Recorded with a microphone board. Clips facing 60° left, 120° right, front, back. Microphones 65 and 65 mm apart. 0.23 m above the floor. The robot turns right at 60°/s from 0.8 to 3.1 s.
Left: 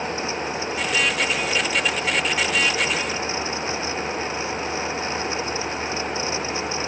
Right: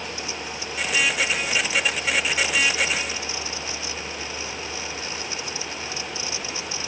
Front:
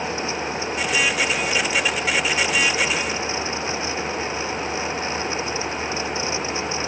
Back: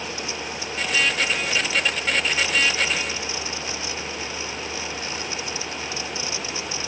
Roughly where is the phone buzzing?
No phone buzzing in this recording.